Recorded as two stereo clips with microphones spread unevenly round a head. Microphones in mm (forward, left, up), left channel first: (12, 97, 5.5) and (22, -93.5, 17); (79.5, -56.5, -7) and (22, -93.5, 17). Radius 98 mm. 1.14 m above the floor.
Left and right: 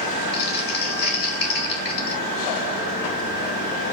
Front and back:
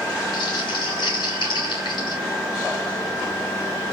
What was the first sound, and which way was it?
Crumpling, 55° left.